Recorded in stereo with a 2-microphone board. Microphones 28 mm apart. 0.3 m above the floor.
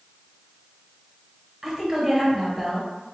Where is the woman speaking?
10° right (ahead or behind), 0.9 m.